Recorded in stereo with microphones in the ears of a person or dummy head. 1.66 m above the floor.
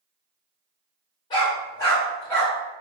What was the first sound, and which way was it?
A dog barking, 20° left (ahead or behind).